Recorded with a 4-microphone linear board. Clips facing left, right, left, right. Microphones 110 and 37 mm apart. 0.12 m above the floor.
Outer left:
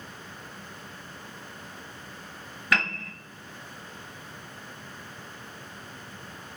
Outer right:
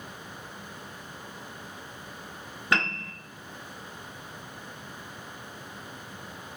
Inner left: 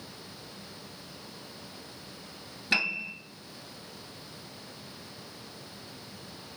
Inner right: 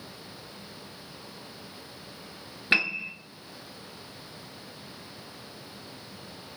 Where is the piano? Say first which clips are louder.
Even, inner right 3 dB; 30° right (ahead or behind), 0.6 m.